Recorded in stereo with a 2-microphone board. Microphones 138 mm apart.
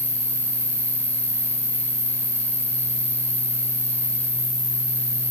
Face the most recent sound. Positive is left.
turn(degrees=-55)  # may be behind; listen again after turning